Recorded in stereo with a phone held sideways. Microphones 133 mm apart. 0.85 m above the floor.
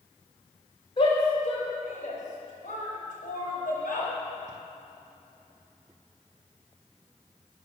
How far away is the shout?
About 3 m.